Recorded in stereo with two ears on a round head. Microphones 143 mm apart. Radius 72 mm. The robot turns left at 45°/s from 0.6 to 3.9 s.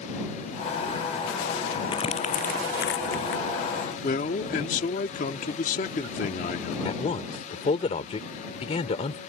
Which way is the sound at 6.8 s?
40° left (ahead or behind).